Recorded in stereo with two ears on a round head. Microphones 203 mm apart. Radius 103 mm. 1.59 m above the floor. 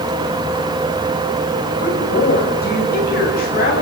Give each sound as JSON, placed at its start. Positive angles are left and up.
{"t": 1.8, "sound": "a woman speaking", "side_deg": 40, "distance_m": 6.5}